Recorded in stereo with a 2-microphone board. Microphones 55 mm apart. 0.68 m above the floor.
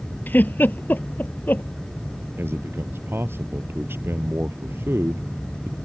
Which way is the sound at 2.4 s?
45° right (ahead or behind).